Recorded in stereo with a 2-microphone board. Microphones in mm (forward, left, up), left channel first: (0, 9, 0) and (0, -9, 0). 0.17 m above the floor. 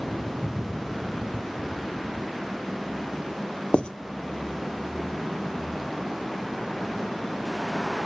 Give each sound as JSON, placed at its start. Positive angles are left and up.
{"t": 3.7, "sound": "writing", "side_deg": 70, "distance_m": 0.7}